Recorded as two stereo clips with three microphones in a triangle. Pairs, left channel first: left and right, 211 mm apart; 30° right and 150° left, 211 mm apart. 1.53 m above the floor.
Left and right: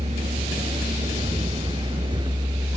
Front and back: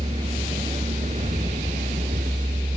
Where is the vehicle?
150° right; by 2.8 s 160° right.